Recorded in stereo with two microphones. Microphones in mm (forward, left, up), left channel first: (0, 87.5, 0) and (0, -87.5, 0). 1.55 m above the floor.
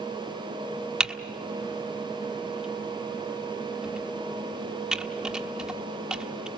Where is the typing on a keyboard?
5° right (ahead or behind), 1.2 m.